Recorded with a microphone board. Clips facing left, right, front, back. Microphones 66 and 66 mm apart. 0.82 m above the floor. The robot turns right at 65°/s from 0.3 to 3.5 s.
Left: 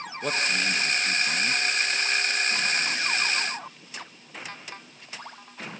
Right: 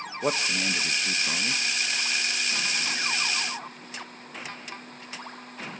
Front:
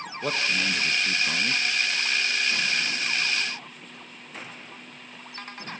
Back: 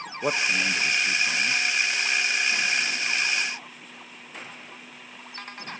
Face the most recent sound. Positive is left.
turn(degrees=85)